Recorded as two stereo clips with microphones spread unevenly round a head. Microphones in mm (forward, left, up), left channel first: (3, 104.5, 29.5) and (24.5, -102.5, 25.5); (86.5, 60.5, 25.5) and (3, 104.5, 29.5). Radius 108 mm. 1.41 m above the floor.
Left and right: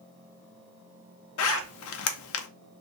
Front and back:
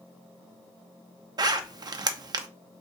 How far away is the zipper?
About 0.5 m.